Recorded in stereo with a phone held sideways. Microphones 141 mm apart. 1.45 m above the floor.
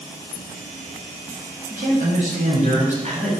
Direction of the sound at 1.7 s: 65° right (ahead or behind).